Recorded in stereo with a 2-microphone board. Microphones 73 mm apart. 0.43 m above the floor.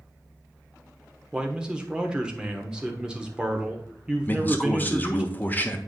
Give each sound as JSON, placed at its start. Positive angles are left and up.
{"t": 1.3, "sound": "a man speaking", "side_deg": -15, "distance_m": 1.0}
{"t": 4.2, "sound": "a man speaking", "side_deg": 25, "distance_m": 1.0}